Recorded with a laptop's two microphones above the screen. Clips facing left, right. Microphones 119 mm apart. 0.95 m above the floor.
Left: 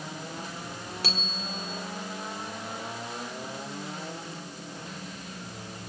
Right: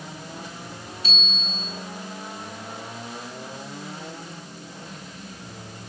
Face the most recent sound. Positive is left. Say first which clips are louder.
# even
turn(degrees=75)  # may be behind; listen again after turning